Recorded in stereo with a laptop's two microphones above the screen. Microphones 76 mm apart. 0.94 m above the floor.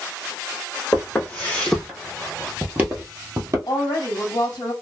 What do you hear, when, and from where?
0.9 s footsteps: 20° left (ahead or behind), 1.7 m; by 3.6 s 45° right (ahead or behind), 1.2 m
3.7 s a woman speaking: 60° left (ahead or behind), 1.4 m